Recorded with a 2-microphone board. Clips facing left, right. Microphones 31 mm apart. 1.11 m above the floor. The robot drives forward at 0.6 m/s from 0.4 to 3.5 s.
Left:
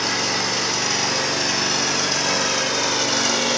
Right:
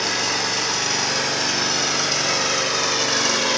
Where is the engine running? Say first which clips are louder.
Even; 10° right (ahead or behind), 3.5 m; by 3.6 s 25° right (ahead or behind), 2.0 m.